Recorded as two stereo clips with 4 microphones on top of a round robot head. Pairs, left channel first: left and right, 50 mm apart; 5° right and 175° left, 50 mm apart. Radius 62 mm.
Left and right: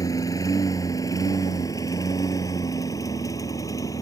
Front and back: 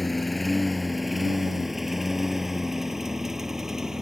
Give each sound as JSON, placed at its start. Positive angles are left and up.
{"t": 0.0, "sound": "a lawn mower", "azimuth_deg": 80}